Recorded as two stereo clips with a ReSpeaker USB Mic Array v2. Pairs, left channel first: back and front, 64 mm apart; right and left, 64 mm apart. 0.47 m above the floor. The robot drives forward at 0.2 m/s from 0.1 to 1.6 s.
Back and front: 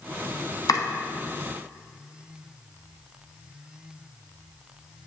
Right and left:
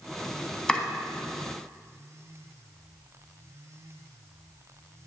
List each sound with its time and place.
0.7 s chopping: 165° right, 0.8 m; by 0.8 s 170° right, 0.9 m